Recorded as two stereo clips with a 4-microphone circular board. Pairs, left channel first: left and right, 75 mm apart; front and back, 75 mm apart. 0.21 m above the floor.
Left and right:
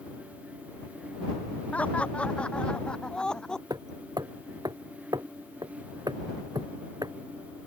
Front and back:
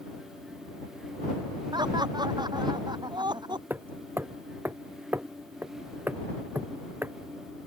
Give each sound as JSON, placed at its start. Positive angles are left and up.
{"t": 1.7, "sound": "laughter", "azimuth_deg": 160}
{"t": 3.7, "sound": "hammering", "azimuth_deg": -120}